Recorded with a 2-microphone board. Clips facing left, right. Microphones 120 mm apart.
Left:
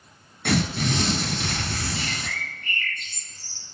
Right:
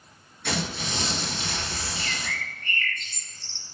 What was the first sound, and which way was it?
Tearing paper, 75° left (ahead or behind).